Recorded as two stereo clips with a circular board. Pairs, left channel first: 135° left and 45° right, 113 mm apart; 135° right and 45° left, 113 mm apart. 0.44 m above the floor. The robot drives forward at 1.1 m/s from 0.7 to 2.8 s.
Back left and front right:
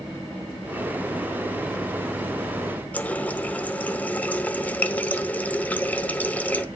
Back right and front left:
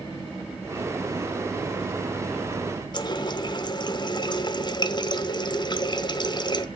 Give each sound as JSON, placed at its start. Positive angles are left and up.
{"t": 2.9, "sound": "a running tap", "azimuth_deg": -155, "distance_m": 0.8}